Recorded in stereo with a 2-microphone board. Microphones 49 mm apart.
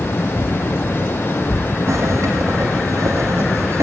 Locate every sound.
1.9 s a zipper: 85° right, 8 m